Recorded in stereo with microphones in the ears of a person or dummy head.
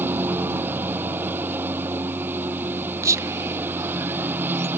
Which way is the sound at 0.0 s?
15° right (ahead or behind).